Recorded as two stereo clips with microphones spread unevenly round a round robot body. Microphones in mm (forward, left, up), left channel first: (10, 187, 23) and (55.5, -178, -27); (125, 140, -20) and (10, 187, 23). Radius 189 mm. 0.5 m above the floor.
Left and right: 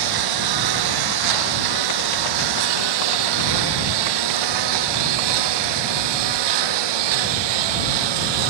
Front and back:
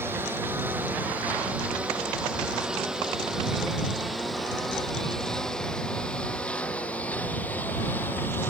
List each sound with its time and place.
0.0 s a lawn mower: 120° right; by 8.5 s 105° right